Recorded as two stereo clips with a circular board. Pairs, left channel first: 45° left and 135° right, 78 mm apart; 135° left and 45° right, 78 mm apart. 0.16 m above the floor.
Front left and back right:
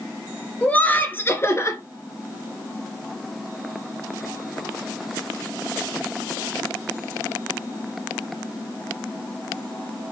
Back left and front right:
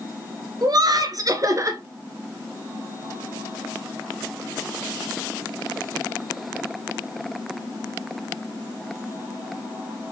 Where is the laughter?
25° right, 2 m; by 1.8 s straight ahead, 2 m.